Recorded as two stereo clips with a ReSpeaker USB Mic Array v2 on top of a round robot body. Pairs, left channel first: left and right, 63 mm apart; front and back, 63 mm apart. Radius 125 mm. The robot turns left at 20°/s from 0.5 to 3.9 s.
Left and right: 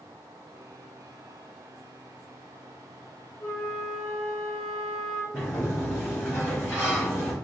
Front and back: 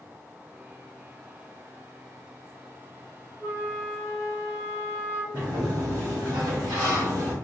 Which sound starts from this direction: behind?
A sliding door, at 5.3 s.